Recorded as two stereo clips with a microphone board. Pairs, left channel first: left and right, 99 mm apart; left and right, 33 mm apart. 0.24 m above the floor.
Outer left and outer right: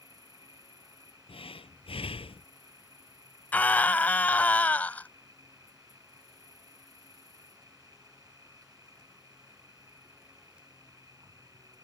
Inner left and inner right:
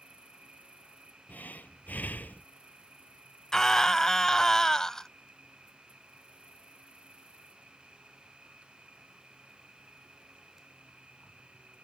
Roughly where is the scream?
Centre.